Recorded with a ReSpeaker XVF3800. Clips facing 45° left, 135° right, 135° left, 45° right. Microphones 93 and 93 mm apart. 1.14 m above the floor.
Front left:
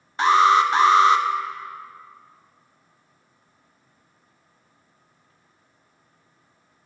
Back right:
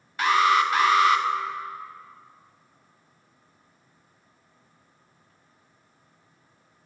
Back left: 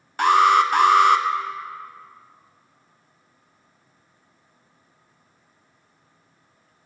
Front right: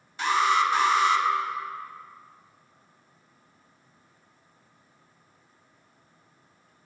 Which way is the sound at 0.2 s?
105° left.